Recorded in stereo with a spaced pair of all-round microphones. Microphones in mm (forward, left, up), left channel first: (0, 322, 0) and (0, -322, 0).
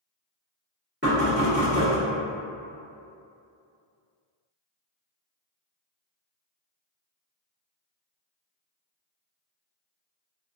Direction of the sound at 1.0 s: 15° right (ahead or behind).